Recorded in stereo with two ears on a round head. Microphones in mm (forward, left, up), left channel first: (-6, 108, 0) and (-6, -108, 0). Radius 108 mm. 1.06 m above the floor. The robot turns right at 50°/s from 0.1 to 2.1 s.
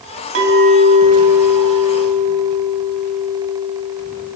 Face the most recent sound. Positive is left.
turn(degrees=25)